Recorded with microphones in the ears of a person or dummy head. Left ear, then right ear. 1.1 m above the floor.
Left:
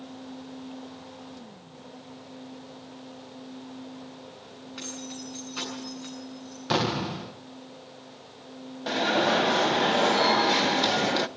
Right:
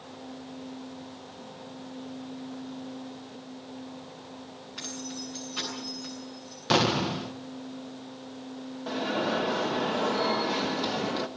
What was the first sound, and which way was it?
Keys jangling, 5° left (ahead or behind).